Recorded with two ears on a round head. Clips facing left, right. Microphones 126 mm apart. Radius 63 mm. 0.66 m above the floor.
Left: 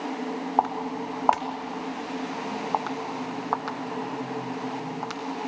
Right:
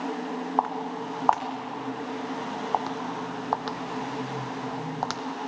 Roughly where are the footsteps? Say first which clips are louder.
Left 3 dB; centre.